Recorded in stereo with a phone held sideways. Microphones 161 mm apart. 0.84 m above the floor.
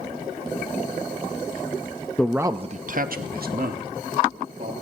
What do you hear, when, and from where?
2.2 s a man speaking: 5° left (ahead or behind), 0.6 m; by 4.7 s 70° right (ahead or behind), 2.5 m